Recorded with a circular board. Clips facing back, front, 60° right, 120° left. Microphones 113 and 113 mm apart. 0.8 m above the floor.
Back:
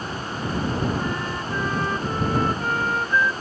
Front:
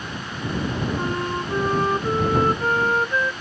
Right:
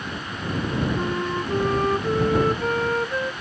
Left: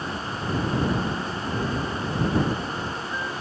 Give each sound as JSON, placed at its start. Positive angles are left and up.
{"t": 0.9, "sound": "a flute", "azimuth_deg": -55}